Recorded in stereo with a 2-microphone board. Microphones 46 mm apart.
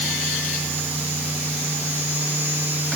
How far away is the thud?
No thud in this recording.